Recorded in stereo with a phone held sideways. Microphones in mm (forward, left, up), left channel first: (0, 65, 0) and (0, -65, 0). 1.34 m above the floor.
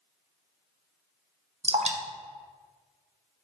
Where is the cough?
No cough in this recording.